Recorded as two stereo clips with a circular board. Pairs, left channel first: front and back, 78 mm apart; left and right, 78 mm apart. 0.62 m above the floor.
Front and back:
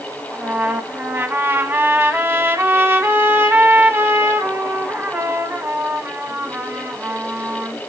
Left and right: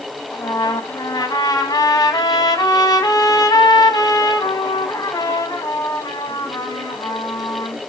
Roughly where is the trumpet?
Behind left.